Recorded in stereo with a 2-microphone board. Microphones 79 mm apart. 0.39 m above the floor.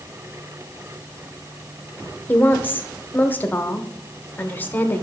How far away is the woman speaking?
About 0.9 m.